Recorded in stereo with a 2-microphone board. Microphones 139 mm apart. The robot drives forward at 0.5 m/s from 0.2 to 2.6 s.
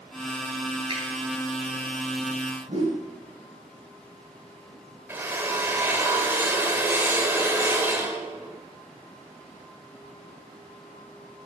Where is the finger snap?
40° right (ahead or behind), 4 m; by 1.0 s 45° right (ahead or behind), 4 m.